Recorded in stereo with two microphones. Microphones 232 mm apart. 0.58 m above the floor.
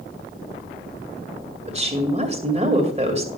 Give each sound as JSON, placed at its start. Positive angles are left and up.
{"t": 1.7, "sound": "a woman speaking", "side_deg": -30, "distance_m": 2.0}